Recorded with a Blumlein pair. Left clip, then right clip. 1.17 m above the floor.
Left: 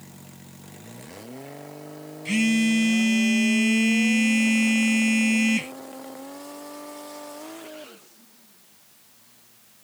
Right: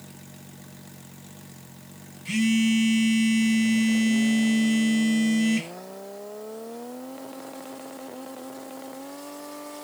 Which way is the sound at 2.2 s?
10° left.